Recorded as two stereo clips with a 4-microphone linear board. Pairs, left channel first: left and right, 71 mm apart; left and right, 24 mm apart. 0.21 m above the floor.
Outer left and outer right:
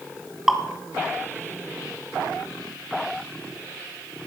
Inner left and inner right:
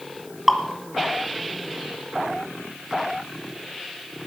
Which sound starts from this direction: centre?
Dripping, at 0.5 s.